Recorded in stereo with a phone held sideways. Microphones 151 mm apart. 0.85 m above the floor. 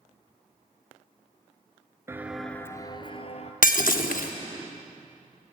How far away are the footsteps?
About 0.8 m.